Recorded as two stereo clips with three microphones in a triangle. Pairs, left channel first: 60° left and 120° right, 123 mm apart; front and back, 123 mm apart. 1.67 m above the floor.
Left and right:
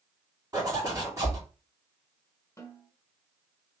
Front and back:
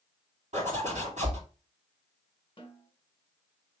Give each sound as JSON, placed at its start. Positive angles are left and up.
{"t": 0.5, "sound": "a zipper", "azimuth_deg": 180, "distance_m": 2.5}
{"t": 2.6, "sound": "a snare drum", "azimuth_deg": 5, "distance_m": 1.7}